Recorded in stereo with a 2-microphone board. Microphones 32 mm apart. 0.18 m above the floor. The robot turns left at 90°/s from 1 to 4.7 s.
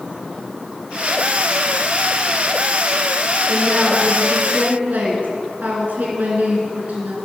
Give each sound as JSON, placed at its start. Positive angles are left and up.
{"t": 3.5, "sound": "a woman speaking", "azimuth_deg": 25, "distance_m": 2.5}